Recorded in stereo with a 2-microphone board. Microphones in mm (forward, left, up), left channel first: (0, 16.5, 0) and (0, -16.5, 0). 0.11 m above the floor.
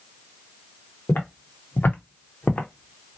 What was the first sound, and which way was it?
Footsteps, 75° left (ahead or behind).